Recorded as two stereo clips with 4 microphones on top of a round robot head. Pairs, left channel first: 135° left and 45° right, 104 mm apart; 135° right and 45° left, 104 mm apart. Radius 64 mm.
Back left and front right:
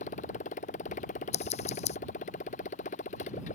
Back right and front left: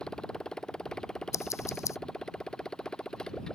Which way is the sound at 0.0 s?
145° left.